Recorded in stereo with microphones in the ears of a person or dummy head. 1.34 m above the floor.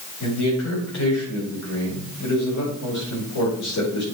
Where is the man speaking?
70° left (ahead or behind), 5 m.